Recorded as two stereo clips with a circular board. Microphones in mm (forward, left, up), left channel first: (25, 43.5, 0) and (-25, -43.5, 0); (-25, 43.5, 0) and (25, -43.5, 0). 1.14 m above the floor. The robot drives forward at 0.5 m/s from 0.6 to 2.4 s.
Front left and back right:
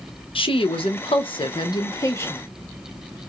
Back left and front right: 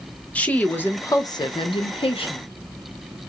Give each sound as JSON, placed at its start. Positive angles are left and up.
{"t": 0.3, "sound": "a woman speaking", "azimuth_deg": 45, "distance_m": 0.7}